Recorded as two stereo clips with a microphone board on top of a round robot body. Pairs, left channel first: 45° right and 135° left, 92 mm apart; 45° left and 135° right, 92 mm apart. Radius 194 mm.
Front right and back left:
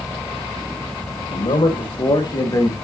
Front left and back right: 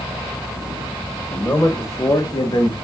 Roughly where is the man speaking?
Ahead right.